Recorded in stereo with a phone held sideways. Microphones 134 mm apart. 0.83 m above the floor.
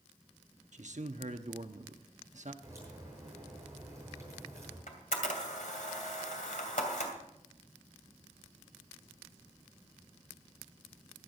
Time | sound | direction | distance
0.7 | a man speaking | 70° right (ahead or behind) | 1.0 m
2.6 | a crack | 25° right (ahead or behind) | 9.5 m
4.9 | a camera shutter | 85° left | 2.5 m